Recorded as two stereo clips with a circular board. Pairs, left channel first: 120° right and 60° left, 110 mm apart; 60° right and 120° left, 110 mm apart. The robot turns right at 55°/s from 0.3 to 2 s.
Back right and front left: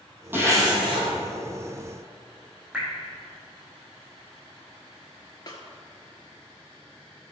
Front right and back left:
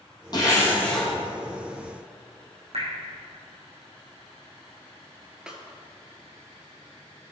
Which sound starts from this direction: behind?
A snare drum, at 5.5 s.